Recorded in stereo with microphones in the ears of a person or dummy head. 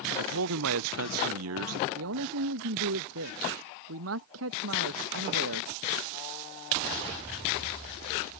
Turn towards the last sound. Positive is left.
turn(degrees=-70)  # may be behind; listen again after turning